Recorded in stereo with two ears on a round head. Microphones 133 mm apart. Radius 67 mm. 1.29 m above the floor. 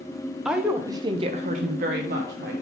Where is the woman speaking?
5° right (ahead or behind), 0.8 m; by 2.5 s 70° right (ahead or behind), 1.1 m.